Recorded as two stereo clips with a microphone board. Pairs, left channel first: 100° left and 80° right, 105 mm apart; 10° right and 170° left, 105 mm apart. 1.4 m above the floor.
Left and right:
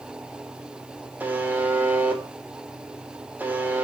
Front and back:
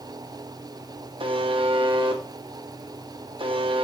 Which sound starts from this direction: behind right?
A buzzer, at 1.2 s.